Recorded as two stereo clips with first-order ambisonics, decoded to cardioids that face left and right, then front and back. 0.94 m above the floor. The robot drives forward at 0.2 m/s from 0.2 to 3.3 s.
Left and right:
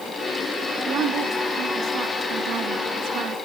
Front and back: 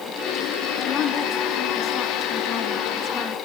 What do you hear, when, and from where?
0.9 s a woman speaking: 45° right, 1.8 m; by 3.4 s 65° right, 1.5 m